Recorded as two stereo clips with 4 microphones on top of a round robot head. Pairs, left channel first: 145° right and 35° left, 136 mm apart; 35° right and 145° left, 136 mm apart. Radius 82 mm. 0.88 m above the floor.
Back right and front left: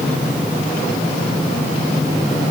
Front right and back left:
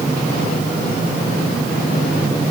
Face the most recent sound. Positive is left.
No sound to turn to.